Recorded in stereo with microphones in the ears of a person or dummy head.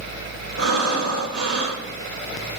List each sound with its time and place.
0.6 s breathing: 85° right, 1.9 m